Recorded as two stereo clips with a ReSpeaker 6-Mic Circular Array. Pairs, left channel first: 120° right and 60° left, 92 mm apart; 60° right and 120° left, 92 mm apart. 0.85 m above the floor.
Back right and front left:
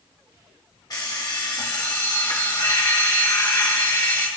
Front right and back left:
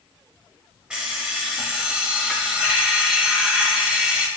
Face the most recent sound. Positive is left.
turn(degrees=-160)